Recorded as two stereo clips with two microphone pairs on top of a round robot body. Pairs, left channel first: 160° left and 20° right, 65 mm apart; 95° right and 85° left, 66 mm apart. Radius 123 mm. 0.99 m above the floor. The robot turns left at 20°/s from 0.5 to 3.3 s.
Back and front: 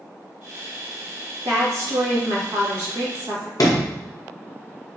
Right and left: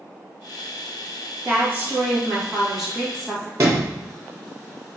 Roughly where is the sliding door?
Behind left.